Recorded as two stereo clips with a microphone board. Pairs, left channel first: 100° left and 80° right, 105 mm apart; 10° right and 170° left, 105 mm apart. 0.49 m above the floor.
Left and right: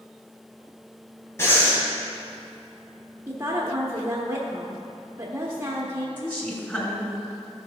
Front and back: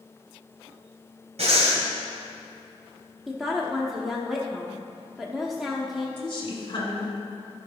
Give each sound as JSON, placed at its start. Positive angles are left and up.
{"t": 1.4, "sound": "breathing", "azimuth_deg": 165, "distance_m": 2.0}
{"t": 3.3, "sound": "a woman speaking", "azimuth_deg": -100, "distance_m": 0.9}
{"t": 6.2, "sound": "a woman speaking", "azimuth_deg": 30, "distance_m": 2.5}